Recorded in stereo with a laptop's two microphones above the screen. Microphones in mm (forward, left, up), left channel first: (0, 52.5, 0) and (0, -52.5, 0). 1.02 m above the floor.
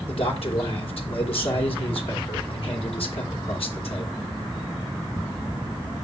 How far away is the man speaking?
About 3 m.